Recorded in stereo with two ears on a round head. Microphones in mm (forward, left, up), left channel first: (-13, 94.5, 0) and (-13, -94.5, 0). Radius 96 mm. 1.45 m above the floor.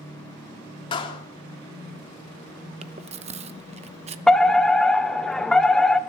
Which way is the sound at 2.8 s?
30° right (ahead or behind).